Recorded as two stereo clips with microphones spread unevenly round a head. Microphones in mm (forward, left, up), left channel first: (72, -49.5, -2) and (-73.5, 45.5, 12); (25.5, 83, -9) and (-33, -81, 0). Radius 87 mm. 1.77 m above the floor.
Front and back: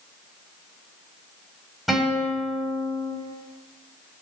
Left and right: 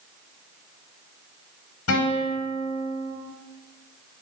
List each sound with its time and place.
1.9 s a guitar: 60° left, 4.5 m